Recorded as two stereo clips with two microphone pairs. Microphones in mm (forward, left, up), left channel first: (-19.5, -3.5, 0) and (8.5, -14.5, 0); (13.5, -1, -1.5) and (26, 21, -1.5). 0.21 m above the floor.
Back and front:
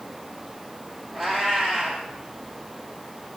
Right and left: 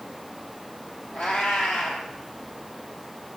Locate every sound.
1.1 s a cat meowing: 110° right, 2 m